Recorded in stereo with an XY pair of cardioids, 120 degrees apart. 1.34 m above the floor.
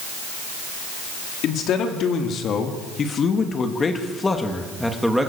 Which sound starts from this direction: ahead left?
A man speaking, at 1.4 s.